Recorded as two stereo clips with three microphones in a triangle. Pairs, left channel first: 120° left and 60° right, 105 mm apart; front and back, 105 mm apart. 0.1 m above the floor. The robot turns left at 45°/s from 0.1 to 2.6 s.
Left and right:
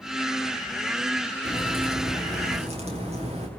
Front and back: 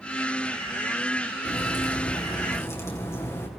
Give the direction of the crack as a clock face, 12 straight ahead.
12 o'clock.